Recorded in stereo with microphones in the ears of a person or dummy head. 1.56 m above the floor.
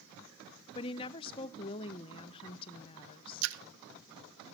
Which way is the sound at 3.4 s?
70° right (ahead or behind).